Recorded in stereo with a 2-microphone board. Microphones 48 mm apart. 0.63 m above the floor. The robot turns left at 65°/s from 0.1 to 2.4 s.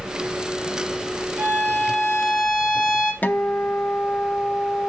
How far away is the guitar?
About 0.5 m.